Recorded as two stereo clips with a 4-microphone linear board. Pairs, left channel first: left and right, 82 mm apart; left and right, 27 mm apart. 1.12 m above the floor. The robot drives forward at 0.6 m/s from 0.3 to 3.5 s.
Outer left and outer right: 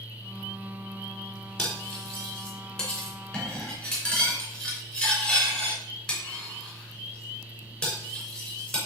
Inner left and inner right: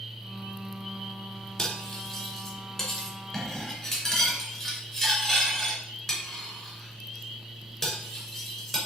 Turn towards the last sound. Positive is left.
turn(degrees=5)  # may be behind; listen again after turning